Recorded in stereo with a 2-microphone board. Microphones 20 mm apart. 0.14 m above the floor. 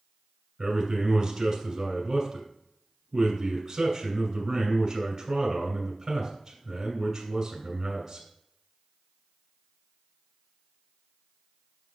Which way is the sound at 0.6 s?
15° right (ahead or behind).